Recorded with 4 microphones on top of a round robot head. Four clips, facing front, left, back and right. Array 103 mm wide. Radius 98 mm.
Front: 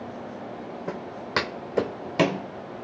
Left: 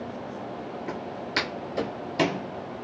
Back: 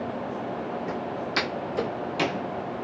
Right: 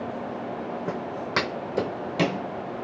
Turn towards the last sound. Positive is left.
turn(degrees=20)